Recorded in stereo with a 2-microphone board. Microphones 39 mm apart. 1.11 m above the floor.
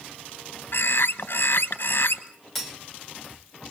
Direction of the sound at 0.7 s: 60° left (ahead or behind).